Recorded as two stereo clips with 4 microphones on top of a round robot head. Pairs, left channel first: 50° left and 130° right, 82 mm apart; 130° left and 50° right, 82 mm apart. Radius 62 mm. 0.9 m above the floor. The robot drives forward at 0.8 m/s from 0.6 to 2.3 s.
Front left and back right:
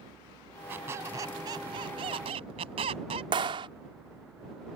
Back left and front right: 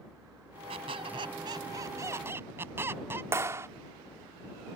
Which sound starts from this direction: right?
A clap, at 3.3 s.